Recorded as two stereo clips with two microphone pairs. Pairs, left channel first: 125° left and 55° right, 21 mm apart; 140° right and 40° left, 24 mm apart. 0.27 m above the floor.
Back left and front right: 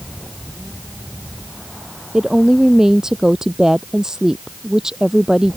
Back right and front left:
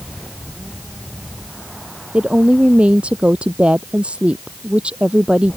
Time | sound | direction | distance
2.1 | a woman speaking | 10° left | ?